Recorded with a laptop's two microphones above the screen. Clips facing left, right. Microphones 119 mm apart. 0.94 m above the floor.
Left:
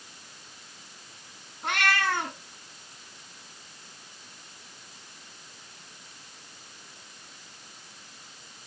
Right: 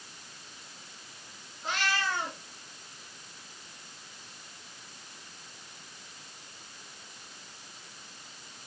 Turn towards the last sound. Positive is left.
turn(degrees=65)  # may be behind; listen again after turning